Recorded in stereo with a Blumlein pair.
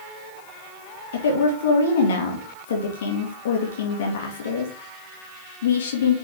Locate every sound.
1.1 s a woman speaking: 60° left, 2.5 m